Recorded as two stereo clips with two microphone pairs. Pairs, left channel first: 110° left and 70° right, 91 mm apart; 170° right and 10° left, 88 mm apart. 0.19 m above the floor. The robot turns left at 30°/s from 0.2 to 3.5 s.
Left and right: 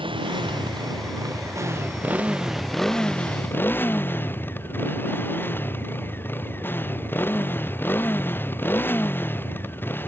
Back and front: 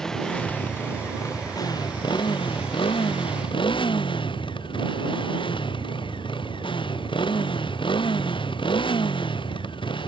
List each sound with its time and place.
0.0 s a motorcycle: 85° right; by 10.1 s 175° left